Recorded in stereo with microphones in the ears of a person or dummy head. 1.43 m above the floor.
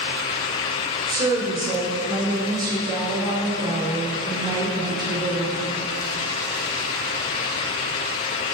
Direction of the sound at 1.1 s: 15° right (ahead or behind).